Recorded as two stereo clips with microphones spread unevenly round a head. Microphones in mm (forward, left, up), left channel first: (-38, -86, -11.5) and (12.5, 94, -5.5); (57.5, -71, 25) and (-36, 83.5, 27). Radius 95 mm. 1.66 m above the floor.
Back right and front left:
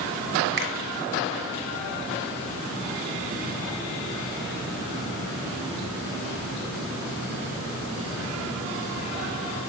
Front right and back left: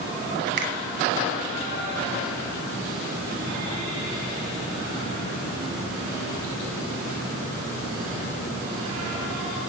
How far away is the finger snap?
About 1.3 m.